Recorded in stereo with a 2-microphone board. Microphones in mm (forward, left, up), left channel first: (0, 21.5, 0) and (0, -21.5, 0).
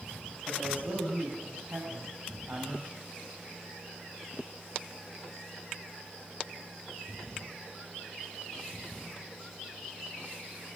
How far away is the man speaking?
About 9 m.